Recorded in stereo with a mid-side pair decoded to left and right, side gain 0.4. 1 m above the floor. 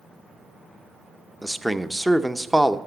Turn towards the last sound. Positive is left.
turn(degrees=-5)